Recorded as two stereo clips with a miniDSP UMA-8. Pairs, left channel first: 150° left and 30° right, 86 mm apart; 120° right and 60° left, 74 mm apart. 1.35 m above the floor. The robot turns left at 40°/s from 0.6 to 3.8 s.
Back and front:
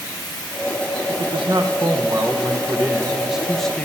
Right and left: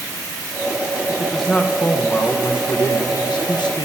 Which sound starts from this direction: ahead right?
A man speaking, at 1.1 s.